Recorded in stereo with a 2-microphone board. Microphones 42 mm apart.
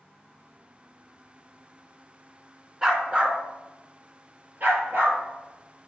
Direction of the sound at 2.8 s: 20° right (ahead or behind).